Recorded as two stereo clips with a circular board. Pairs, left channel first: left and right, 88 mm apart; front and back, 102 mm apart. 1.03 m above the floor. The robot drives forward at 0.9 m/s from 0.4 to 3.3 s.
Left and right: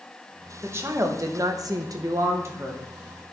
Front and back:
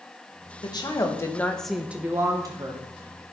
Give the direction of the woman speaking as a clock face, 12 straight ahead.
1 o'clock.